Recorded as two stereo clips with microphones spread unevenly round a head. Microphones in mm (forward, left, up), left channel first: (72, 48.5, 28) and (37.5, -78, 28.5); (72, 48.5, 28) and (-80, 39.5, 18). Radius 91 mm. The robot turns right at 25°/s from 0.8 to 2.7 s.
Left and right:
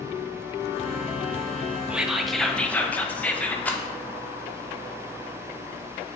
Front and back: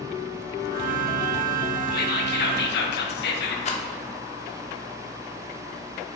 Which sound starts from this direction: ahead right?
Whispering, at 1.9 s.